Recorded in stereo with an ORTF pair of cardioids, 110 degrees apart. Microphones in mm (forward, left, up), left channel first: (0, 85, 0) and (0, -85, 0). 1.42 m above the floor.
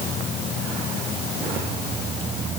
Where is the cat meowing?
I don't hear a cat meowing.